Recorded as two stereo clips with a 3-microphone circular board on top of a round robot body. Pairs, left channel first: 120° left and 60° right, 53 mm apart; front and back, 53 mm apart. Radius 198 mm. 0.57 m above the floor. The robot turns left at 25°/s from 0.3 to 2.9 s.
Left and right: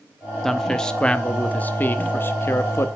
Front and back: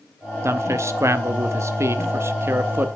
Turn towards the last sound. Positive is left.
turn(degrees=140)